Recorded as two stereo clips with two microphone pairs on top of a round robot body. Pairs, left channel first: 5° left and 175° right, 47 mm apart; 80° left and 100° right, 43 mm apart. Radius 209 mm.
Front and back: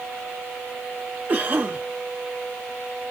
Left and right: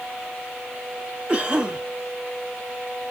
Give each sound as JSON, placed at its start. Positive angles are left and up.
{"t": 1.3, "sound": "a cough", "azimuth_deg": -165, "distance_m": 1.8}